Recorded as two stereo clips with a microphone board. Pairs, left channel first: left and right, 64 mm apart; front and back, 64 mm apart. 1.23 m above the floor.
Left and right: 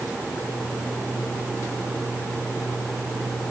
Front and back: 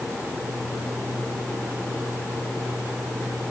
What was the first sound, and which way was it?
Only background noise.